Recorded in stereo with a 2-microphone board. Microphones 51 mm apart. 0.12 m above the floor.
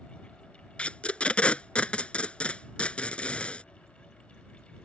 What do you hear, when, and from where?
0.8 s tape being pulled: 25° left (ahead or behind)